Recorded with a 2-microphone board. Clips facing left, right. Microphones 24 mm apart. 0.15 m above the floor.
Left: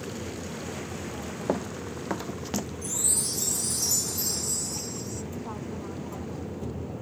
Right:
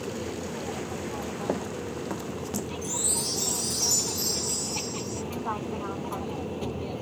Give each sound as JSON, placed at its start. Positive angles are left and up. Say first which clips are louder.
{"t": 0.0, "sound": "an aircraft", "louder": "right 3 dB", "side_deg": -60}
{"t": 1.5, "sound": "running footsteps", "louder": "left 3 dB", "side_deg": 10}
{"t": 2.8, "sound": "a chime", "louder": "right 1 dB", "side_deg": -20}